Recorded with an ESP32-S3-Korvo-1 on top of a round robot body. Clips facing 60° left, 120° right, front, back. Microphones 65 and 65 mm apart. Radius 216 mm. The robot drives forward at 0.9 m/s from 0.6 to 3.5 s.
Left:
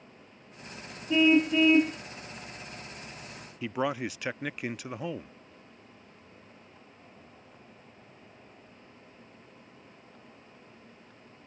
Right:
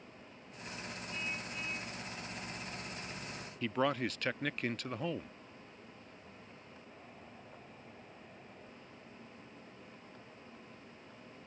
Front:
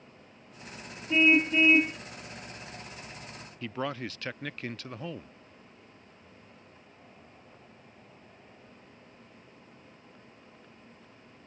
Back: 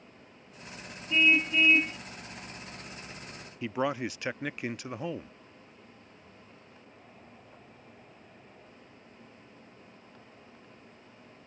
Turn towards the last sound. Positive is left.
turn(degrees=130)